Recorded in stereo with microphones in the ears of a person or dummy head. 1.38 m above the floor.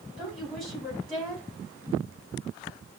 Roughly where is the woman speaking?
Centre.